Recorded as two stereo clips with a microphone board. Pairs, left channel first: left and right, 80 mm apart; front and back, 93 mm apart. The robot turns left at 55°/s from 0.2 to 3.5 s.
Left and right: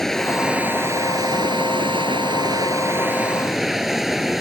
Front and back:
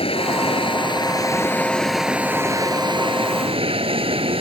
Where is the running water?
5° left; by 4.4 s 175° right.